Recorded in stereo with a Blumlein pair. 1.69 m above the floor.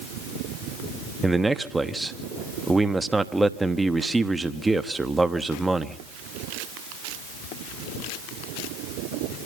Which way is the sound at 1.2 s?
10° right.